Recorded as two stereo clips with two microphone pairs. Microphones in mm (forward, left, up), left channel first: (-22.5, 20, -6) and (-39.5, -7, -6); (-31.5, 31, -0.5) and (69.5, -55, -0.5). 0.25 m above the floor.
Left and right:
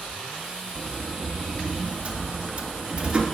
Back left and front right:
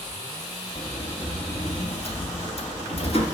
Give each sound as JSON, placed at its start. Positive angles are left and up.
{"t": 0.8, "sound": "a sliding door", "azimuth_deg": 175, "distance_m": 1.7}